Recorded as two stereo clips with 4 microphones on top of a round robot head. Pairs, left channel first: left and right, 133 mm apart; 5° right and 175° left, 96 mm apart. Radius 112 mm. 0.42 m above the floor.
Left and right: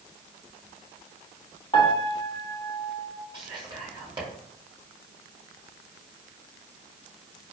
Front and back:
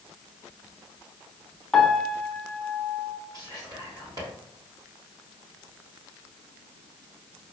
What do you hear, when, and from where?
1.7 s a piano: 75° left, 1.0 m
3.3 s whispering: 140° right, 2.0 m